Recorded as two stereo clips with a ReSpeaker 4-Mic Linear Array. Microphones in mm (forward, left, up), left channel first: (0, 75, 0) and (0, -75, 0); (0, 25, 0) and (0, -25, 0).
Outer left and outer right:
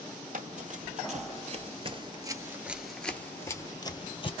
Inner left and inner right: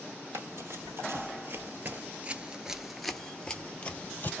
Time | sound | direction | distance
0.3 | running footsteps | 60° right (ahead or behind) | 1.3 m